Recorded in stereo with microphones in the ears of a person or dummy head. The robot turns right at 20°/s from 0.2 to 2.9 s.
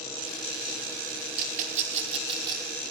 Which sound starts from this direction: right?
A rattle, at 1.4 s.